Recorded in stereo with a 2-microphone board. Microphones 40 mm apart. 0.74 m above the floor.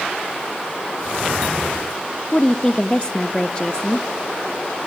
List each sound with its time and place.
2.3 s a woman speaking: 25° left (ahead or behind), 0.5 m